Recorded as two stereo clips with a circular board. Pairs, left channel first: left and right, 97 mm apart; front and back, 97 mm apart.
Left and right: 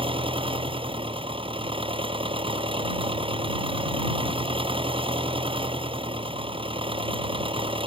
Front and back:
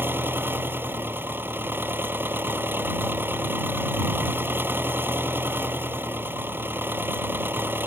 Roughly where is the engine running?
Right.